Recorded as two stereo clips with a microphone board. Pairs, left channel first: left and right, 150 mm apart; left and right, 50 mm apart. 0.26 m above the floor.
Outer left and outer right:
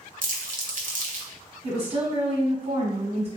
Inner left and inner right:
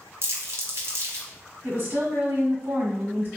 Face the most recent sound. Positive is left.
turn(degrees=-45)  # may be behind; listen again after turning